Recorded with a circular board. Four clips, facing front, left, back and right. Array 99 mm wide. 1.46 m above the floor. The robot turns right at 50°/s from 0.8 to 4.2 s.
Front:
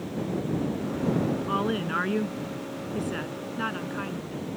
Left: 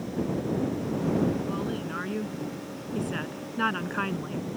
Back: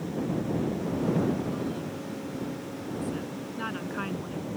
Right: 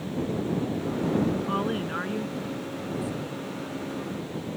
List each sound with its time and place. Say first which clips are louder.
1.5 s a woman speaking: right 3 dB, front 5 dB; 30° right; by 4.5 s 105° left